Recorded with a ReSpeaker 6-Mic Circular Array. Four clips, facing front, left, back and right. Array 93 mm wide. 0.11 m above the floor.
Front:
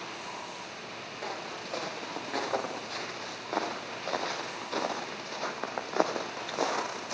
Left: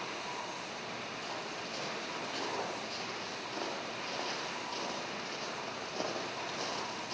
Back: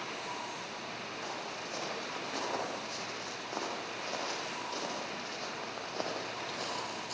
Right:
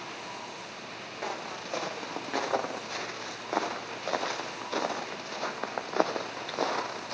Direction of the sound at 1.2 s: 75° right.